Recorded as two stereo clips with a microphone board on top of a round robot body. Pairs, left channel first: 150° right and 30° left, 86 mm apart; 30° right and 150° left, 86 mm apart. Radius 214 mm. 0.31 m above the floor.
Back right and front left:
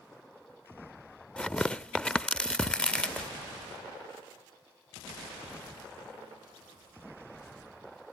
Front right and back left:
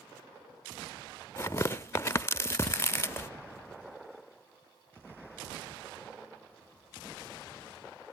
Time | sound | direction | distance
1.4 | tearing paper | 75° right | 0.7 m